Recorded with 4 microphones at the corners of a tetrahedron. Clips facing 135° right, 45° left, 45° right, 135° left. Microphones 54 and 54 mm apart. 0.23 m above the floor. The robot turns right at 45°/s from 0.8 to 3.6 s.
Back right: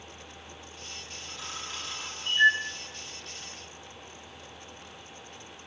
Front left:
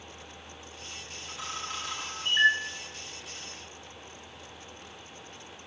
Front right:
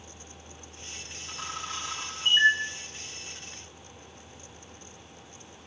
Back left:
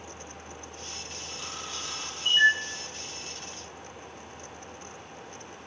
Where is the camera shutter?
25° right, 10 m; by 2.5 s 30° left, 10 m.